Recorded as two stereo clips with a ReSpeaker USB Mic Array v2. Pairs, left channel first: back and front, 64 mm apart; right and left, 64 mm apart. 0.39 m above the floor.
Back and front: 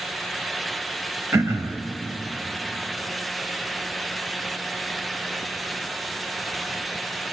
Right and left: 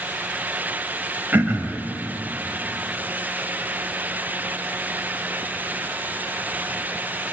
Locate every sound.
1.3 s throat clearing: 35° left, 0.7 m